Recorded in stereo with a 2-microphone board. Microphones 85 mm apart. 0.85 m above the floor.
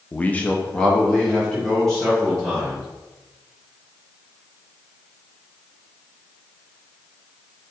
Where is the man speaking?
15° left (ahead or behind), 0.6 m; by 2.8 s 5° left (ahead or behind), 4 m.